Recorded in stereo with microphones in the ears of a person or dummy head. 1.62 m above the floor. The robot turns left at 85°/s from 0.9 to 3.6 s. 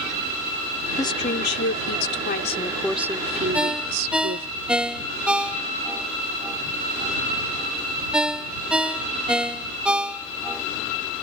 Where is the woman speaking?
165° left; by 4.5 s 60° right.